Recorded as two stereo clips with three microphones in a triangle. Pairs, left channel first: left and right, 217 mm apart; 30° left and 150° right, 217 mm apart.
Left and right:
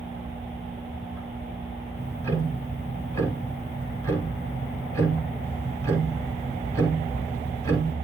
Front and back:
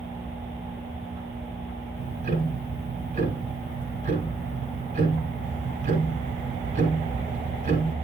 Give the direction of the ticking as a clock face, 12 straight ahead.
6 o'clock.